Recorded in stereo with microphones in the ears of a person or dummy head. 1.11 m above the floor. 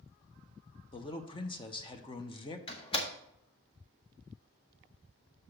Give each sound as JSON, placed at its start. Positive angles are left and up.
{"t": 0.9, "sound": "a man speaking", "side_deg": 20, "distance_m": 0.7}
{"t": 2.7, "sound": "a door slam", "side_deg": 30, "distance_m": 0.8}